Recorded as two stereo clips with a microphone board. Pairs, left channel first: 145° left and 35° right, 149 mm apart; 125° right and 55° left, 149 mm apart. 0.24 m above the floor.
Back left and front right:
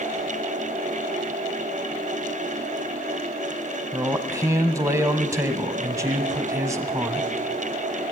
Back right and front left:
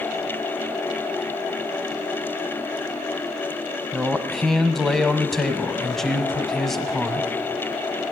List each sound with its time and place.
3.9 s a man speaking: 40° right, 1.0 m